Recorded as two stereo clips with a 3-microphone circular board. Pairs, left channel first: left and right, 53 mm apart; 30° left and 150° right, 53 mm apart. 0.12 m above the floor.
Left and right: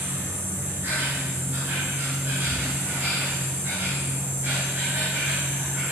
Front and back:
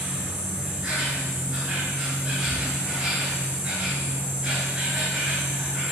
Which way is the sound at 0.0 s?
85° right.